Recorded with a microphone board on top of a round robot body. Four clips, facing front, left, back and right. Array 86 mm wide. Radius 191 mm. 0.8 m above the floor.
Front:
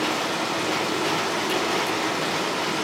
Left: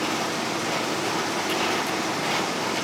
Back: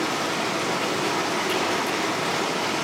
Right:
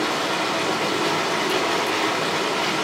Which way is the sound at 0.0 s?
90° right.